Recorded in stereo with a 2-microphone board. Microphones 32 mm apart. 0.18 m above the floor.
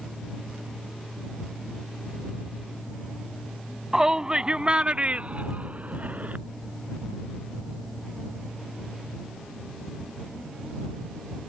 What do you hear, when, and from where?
3.9 s a shout: 15° right (ahead or behind); by 6.4 s 50° right (ahead or behind)